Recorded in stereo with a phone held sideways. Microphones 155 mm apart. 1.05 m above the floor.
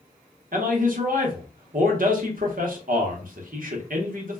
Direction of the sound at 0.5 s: 65° right (ahead or behind).